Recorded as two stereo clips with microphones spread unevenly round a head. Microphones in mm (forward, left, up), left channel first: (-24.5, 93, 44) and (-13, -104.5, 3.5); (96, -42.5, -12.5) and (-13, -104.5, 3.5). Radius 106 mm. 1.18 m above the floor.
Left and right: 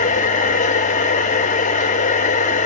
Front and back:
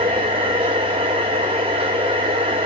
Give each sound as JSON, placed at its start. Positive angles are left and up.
{"t": 0.0, "sound": "a machine running", "azimuth_deg": 145, "distance_m": 1.4}